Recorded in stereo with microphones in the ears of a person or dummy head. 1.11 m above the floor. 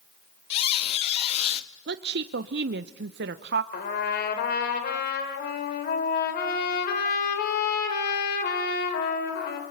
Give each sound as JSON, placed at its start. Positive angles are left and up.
{"t": 0.5, "sound": "a squeak", "side_deg": 35, "distance_m": 0.6}
{"t": 1.9, "sound": "a woman speaking", "side_deg": -50, "distance_m": 0.6}
{"t": 3.7, "sound": "a trumpet", "side_deg": 55, "distance_m": 3.5}